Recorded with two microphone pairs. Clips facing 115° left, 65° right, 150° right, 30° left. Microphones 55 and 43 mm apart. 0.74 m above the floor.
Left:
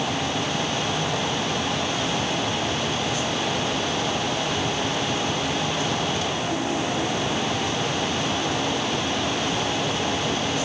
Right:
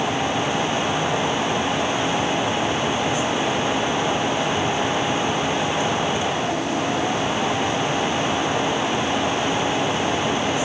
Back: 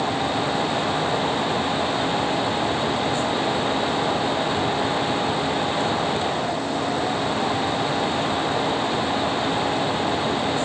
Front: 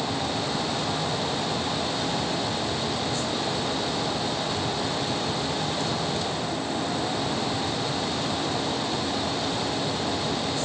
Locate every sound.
Only background noise.